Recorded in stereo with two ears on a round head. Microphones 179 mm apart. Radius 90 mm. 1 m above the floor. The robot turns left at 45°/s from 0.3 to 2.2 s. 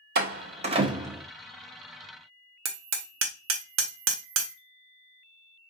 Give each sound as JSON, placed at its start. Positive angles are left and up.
{"t": 0.1, "sound": "a door slam", "side_deg": -50, "distance_m": 0.9}
{"t": 2.6, "sound": "hammering", "side_deg": -75, "distance_m": 0.9}